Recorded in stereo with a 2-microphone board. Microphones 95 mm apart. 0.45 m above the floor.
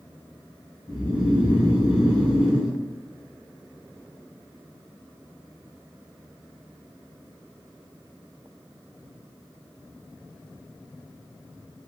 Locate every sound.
0.9 s snoring: 5° right (ahead or behind), 2.0 m